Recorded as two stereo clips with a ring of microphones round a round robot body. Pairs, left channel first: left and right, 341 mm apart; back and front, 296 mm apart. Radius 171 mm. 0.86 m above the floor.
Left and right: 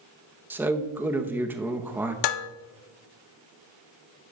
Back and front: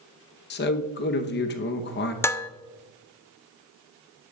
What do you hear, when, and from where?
0.5 s a man speaking: 170° right, 0.8 m
2.2 s dishes clattering: 100° left, 0.6 m